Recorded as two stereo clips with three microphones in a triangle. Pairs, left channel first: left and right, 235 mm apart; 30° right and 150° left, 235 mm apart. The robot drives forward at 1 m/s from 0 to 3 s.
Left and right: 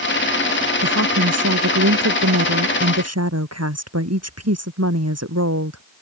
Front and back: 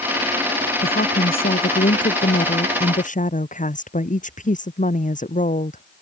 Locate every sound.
0.8 s a woman speaking: 80° right; by 5.8 s 90° right